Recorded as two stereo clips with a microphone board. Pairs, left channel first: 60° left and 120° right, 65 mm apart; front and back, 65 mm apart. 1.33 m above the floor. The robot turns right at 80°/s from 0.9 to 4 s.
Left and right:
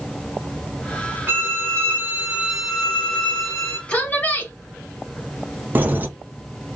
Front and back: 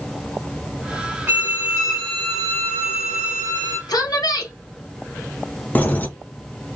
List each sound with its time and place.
1.3 s a violin: 160° right, 1.2 m; by 3.8 s 45° left, 1.2 m
3.9 s a woman speaking: 15° right, 1.0 m; by 4.5 s 5° right, 1.0 m
5.8 s keys jangling: 65° right, 0.5 m